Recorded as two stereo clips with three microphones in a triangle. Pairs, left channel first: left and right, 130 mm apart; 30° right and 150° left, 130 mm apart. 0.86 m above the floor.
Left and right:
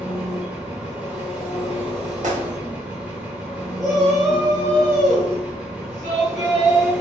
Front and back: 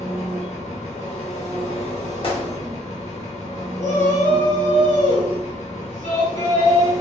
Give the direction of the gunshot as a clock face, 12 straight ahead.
3 o'clock.